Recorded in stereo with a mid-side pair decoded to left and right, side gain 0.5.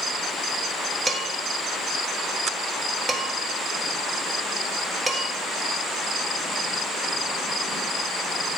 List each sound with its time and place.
1.1 s dishes clattering: 30° right, 1.5 m